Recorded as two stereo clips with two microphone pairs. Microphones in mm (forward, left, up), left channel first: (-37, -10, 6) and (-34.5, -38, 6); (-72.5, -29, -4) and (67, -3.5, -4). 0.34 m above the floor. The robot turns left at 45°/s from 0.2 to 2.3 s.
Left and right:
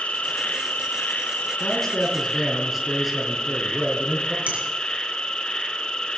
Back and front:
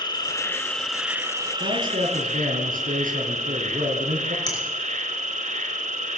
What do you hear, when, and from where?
0.0 s an insect: 130° left, 1.7 m; by 6.2 s 35° left, 1.7 m
1.6 s a man speaking: 30° left, 4 m; by 4.4 s straight ahead, 4 m
4.5 s a finger snap: 110° right, 4.5 m